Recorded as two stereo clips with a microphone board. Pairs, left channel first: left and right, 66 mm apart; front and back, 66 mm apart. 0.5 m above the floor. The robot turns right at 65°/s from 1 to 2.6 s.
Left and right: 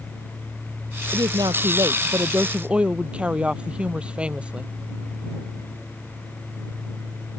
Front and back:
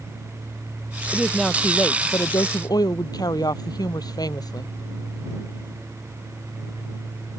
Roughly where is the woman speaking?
Right.